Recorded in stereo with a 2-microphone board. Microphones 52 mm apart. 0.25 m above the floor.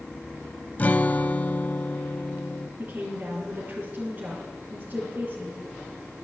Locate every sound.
0.8 s a guitar: 30° left (ahead or behind), 0.5 m
2.8 s a woman speaking: 30° right (ahead or behind), 3 m